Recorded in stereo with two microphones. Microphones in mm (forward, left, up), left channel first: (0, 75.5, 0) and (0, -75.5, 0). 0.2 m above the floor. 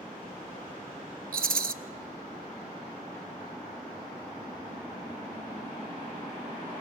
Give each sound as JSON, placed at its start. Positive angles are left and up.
{"t": 1.3, "sound": "a rattle", "side_deg": -80, "distance_m": 0.6}